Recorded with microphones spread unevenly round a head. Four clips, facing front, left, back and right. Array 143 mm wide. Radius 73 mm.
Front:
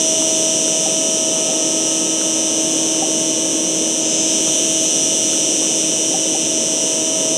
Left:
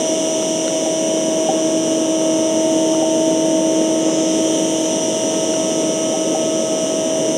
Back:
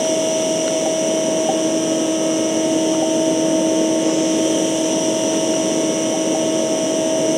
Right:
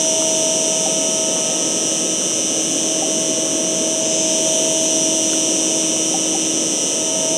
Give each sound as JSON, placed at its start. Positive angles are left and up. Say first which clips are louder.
{"t": 0.0, "sound": "an insect", "louder": "left 3 dB, back 4 dB", "azimuth_deg": -40, "distance_m": 4.0}